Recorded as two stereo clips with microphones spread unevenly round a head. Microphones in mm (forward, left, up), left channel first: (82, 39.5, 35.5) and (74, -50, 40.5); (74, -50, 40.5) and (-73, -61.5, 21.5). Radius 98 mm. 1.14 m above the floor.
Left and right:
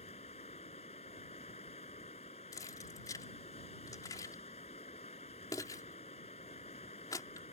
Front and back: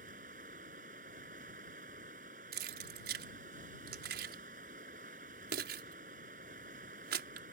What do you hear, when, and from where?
0.0 s running water: 130° left
2.5 s keys jangling: 155° left